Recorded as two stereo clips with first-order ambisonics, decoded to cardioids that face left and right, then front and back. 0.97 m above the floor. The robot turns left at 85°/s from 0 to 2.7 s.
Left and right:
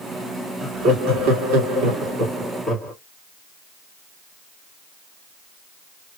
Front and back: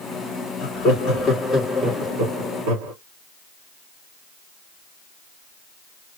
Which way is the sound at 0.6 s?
10° right.